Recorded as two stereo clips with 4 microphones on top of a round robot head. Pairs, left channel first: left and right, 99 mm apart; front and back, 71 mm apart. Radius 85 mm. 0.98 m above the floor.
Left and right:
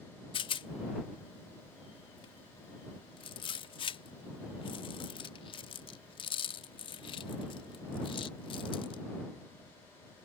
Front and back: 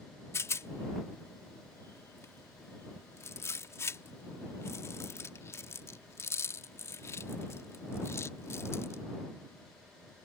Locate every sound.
0.3 s a rattle: 55° left